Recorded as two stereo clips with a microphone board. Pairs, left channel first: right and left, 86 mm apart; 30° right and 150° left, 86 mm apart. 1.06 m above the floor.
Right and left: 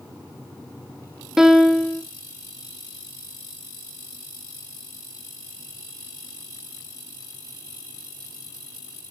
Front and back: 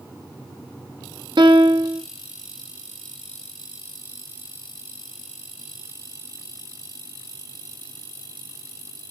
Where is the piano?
175° left, 1.2 m.